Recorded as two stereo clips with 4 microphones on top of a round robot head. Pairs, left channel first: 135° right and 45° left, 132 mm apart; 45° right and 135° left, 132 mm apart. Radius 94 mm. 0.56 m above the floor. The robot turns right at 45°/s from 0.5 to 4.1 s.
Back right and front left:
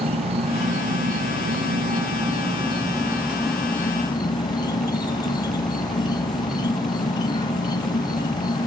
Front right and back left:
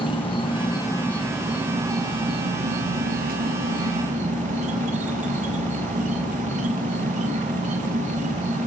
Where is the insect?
5° left, 3.5 m; by 8.7 s 165° left, 3.5 m.